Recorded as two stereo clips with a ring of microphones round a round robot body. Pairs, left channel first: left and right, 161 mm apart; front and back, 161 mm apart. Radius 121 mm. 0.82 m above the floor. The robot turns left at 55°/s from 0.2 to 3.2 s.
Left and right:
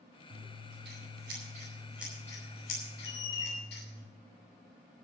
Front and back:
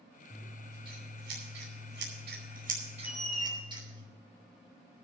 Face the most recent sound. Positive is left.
turn(degrees=90)